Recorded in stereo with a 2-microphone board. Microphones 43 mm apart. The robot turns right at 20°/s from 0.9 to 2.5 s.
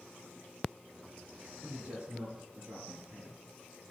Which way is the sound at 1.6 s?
55° right (ahead or behind).